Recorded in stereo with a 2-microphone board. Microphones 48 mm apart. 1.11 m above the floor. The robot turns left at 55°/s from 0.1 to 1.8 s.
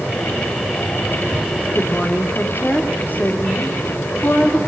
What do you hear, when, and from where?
1.8 s a woman speaking: 35° left (ahead or behind), 3 m; by 4.6 s 40° left (ahead or behind), 3 m